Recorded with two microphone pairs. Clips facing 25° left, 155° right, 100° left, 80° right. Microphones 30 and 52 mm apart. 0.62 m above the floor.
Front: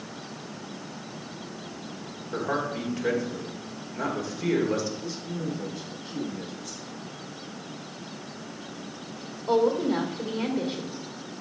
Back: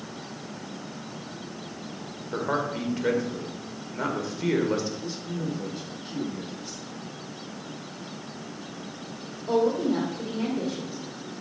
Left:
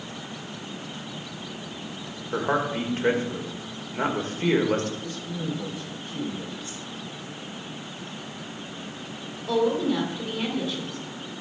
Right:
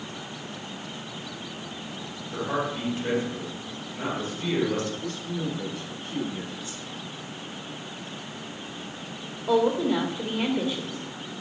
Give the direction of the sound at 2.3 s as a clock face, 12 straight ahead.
8 o'clock.